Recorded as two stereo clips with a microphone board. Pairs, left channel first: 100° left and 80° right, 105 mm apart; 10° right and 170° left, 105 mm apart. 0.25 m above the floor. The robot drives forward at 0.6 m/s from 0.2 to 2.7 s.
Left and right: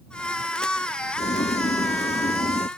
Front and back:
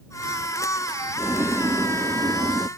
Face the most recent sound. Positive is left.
turn(degrees=120)